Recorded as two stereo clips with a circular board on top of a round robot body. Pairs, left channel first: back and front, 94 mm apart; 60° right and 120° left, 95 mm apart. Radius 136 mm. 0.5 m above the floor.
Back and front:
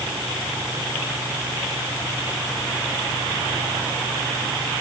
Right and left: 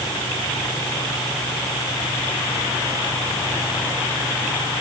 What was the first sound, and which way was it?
Only background noise.